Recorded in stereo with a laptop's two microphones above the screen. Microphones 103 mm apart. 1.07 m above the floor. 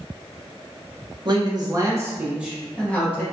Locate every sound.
1.2 s a man speaking: 45° right (ahead or behind), 0.8 m; by 3.2 s 15° left (ahead or behind), 0.8 m